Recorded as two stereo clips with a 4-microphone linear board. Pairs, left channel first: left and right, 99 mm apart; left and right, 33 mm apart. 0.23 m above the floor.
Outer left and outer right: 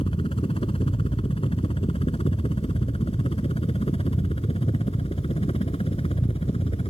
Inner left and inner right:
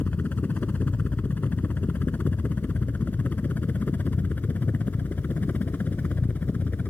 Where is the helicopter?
60° left (ahead or behind); by 6.9 s 65° left (ahead or behind).